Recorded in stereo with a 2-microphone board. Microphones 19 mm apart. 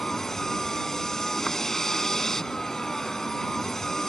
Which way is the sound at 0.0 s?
20° left (ahead or behind).